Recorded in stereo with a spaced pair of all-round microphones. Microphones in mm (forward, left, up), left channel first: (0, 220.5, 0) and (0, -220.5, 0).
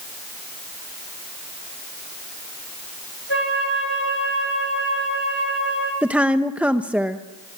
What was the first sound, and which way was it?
A flute, 75° right (ahead or behind).